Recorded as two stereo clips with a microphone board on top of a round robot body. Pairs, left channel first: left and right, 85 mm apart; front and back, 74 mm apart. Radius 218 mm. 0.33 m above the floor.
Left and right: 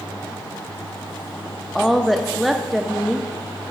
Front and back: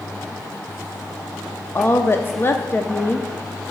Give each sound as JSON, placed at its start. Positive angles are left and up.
{"t": 1.8, "sound": "a woman speaking", "azimuth_deg": 0, "distance_m": 0.9}